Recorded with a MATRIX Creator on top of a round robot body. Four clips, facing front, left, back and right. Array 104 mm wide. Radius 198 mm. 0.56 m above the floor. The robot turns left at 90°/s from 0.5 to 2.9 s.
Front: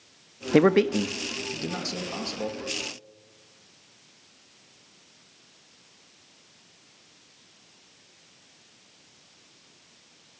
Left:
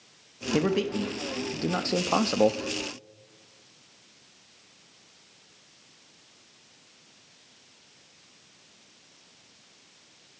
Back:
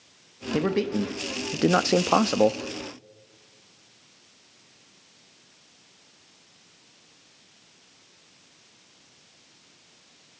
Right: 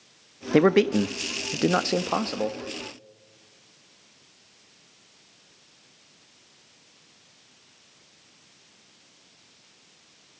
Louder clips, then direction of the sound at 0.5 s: Right 7 dB, front 6 dB; 40° right.